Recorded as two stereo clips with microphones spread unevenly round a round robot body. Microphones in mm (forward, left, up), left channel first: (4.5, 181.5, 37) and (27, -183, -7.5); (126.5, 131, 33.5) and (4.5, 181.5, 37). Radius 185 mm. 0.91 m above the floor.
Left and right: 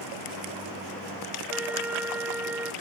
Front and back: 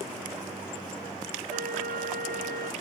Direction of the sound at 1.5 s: 175° right.